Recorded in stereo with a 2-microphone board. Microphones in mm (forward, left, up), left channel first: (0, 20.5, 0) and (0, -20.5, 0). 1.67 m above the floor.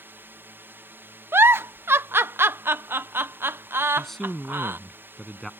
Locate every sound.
0.0 s a drone: 60° right (ahead or behind)
1.3 s a giggle: 70° right (ahead or behind)
4.0 s a man speaking: 10° left (ahead or behind)